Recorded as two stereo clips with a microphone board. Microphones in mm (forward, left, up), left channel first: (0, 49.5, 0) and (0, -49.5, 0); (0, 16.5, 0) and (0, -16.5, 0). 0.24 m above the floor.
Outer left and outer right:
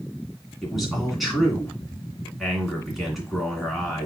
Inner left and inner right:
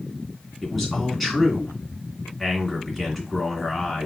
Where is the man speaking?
Centre (ahead or behind), 2.5 m.